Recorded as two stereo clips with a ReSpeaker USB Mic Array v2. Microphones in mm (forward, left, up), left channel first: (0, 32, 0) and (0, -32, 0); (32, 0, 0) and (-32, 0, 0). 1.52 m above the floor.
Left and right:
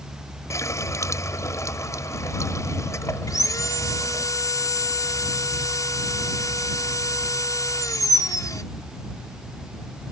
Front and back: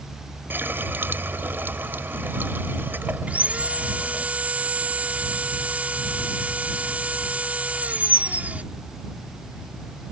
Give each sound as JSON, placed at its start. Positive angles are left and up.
{"t": 0.5, "sound": "a running tap", "azimuth_deg": 125}
{"t": 3.3, "sound": "sawing", "azimuth_deg": 115}